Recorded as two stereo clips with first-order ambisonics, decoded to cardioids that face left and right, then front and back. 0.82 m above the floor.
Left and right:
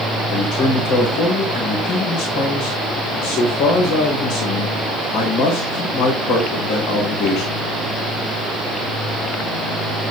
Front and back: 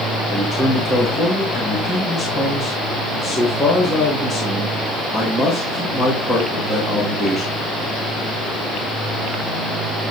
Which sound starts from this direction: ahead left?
A man speaking, at 0.3 s.